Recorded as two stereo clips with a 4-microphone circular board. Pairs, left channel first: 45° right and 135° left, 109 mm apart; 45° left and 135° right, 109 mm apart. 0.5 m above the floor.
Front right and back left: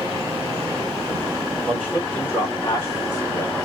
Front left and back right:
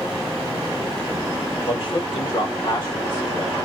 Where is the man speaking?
30° left, 1.7 m; by 3.5 s 20° right, 1.4 m.